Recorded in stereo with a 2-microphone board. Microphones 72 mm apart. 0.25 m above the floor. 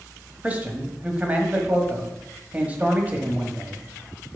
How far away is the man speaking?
About 1.2 m.